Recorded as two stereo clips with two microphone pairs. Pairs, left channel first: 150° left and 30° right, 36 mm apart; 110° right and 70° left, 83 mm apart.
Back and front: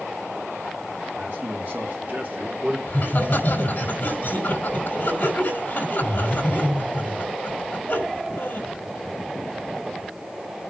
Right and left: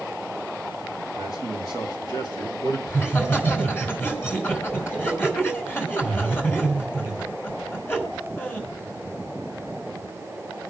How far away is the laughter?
About 5.5 m.